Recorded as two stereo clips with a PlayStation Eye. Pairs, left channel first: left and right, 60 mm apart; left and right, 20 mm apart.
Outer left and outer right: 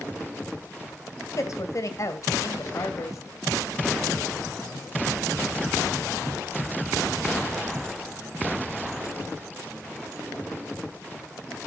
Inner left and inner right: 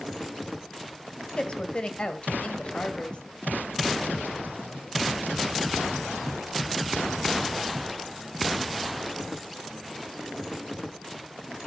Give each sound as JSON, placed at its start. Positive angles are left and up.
{"t": 1.4, "sound": "a woman speaking", "side_deg": 50, "distance_m": 1.8}